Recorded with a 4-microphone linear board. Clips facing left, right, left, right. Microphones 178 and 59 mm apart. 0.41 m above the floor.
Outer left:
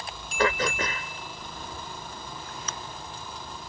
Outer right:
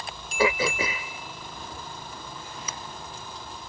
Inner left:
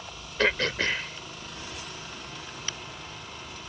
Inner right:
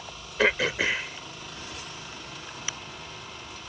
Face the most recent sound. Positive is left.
turn(degrees=-10)  # may be behind; listen again after turning